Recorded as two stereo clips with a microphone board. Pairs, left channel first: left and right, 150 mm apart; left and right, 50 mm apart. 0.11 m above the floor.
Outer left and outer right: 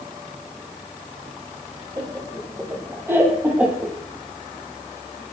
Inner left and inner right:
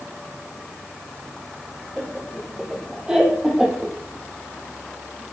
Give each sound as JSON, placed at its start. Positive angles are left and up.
{"t": 2.0, "sound": "laughter", "side_deg": -20, "distance_m": 5.5}